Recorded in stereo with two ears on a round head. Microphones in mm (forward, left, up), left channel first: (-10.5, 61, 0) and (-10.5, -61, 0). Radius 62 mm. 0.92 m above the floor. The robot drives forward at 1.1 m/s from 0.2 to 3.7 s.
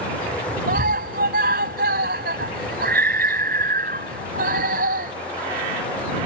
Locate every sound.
0.7 s a scream: 70° right (ahead or behind); by 5.1 s 80° right